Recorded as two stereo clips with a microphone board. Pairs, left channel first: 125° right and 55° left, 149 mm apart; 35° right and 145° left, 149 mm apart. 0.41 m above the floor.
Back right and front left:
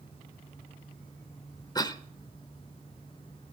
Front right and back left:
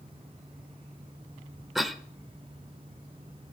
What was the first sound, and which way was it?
A cough, 125° right.